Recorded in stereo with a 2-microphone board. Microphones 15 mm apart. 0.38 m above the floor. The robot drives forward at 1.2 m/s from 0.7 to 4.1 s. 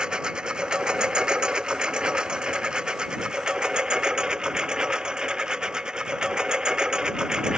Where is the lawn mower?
85° right; by 7.6 s 60° right (ahead or behind).